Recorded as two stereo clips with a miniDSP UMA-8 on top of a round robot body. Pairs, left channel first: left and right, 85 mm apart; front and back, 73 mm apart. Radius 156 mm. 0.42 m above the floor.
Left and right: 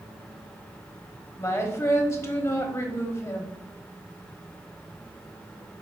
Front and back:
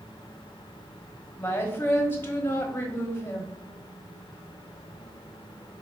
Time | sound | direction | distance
1.4 | a woman speaking | 50° left | 1.3 m